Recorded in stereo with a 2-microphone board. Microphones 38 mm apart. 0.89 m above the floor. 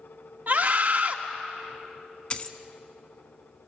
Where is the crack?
I don't hear a crack.